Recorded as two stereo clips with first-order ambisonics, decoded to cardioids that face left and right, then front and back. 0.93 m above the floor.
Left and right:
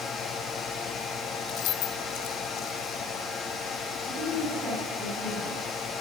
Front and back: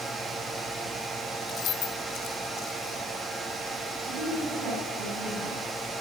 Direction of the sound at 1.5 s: 50° left.